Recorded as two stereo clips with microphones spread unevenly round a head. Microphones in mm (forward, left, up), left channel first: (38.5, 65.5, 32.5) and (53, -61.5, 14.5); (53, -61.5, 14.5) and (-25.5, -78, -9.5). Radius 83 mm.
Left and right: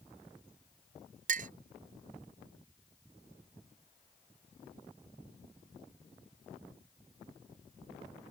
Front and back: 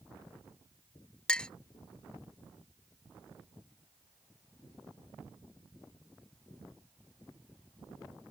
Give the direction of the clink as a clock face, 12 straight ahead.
2 o'clock.